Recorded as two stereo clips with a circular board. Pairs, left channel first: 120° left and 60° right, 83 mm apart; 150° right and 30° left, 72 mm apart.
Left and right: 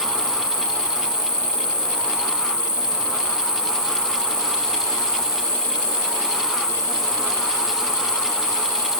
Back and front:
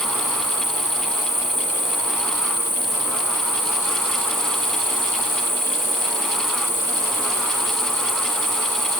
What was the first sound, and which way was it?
An insect, 50° left.